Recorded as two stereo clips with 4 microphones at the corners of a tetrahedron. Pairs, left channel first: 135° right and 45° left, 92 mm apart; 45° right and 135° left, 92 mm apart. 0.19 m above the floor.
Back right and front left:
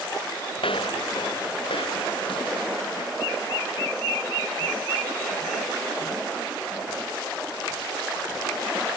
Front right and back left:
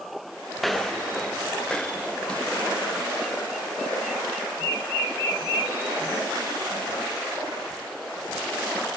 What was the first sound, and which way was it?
Footsteps, 135° right.